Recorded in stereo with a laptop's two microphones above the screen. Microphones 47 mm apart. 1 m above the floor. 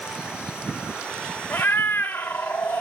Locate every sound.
1.5 s a cat meowing: 65° left (ahead or behind), 0.9 m